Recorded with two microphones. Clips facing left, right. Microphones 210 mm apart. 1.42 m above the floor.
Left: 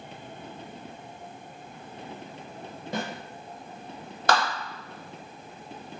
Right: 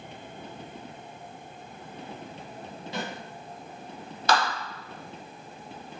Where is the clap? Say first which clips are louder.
Even; 55° left (ahead or behind), 0.9 m.